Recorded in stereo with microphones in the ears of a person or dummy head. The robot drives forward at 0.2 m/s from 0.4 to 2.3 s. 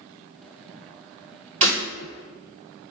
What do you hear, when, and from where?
1.6 s breaking glass: 20° right (ahead or behind), 1.9 m